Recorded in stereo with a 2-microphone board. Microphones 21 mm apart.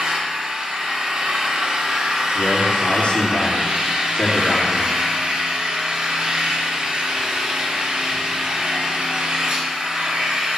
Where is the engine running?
45° right (ahead or behind), 2.5 m.